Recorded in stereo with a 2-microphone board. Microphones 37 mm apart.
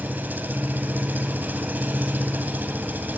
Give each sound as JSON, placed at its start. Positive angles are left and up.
{"t": 0.0, "sound": "an engine running", "side_deg": -55, "distance_m": 2.0}